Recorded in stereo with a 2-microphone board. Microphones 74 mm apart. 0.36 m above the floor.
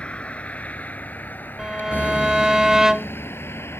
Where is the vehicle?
15° left (ahead or behind); by 3.8 s 35° left (ahead or behind).